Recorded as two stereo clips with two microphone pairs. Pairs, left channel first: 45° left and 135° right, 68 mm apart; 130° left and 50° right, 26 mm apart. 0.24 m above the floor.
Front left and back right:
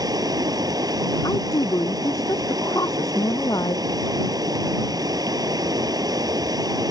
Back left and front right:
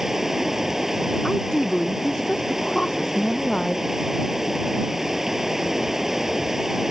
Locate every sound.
0.0 s running water: 120° right
1.2 s a woman speaking: 70° left